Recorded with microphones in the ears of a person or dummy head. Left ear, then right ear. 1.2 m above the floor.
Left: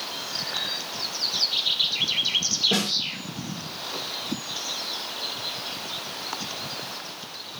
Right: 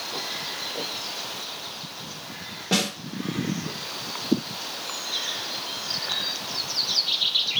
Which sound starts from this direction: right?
A snare drum, at 2.7 s.